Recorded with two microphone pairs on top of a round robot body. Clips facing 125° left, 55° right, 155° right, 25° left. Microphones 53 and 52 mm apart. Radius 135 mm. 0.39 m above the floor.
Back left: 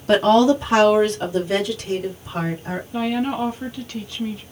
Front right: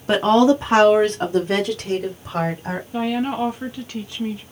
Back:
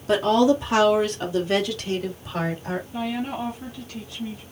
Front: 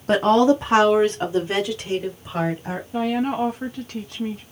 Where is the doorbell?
I don't hear a doorbell.